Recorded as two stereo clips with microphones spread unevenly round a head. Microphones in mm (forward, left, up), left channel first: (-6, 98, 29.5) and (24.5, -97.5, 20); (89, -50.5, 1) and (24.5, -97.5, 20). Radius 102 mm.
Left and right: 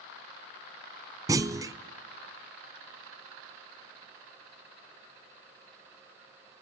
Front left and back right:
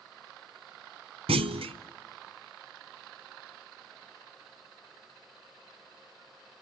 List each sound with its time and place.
1.3 s a clunk: 155° right, 0.6 m